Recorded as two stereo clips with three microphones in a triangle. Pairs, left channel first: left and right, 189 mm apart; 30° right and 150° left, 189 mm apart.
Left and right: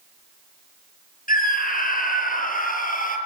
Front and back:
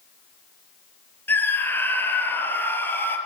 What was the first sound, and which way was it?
A scream, 50° left.